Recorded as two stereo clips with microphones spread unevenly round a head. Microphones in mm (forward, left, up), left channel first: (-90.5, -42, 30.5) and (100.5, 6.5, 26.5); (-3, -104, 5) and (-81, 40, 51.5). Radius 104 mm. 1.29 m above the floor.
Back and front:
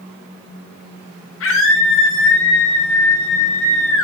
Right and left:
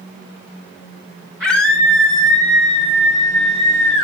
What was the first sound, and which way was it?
A scream, 165° right.